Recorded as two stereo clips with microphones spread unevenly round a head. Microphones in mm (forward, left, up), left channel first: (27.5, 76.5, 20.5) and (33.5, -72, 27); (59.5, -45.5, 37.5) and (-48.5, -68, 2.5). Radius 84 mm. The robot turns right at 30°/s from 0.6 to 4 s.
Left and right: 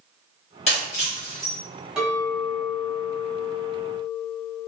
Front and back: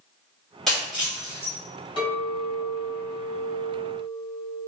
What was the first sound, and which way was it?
Breaking glass, 70° left.